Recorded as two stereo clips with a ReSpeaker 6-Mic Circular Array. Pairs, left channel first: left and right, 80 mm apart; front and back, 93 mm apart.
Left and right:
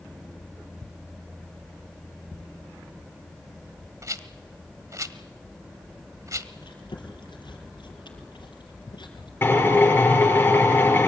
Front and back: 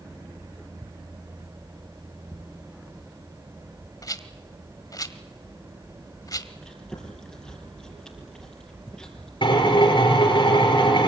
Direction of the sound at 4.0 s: 45° right.